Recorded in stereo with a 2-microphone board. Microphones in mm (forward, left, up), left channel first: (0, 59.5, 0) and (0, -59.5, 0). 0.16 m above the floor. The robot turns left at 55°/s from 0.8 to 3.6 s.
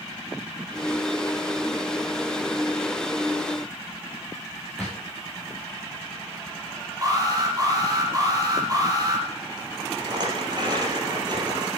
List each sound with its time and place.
4.8 s a drawer: centre (ahead or behind), 6.5 m
7.0 s an alarm: 30° right (ahead or behind), 6.5 m
10.0 s a rattle: 40° right (ahead or behind), 4 m